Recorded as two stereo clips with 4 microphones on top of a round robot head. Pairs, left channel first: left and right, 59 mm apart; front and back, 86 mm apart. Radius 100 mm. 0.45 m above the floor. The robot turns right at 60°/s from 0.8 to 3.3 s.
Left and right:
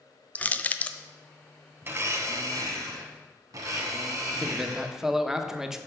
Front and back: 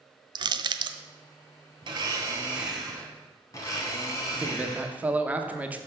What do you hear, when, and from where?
0.3 s crushing: 155° left, 0.5 m; by 1.0 s 165° left, 0.5 m
1.8 s a blender: 145° right, 1.0 m; by 4.9 s 55° right, 1.0 m
4.3 s a man speaking: 155° right, 0.9 m